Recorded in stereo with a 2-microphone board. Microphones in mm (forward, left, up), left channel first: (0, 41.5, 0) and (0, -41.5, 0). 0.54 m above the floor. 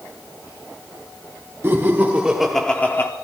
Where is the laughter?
30° right (ahead or behind), 1.5 m; by 3.1 s 35° left (ahead or behind), 1.0 m.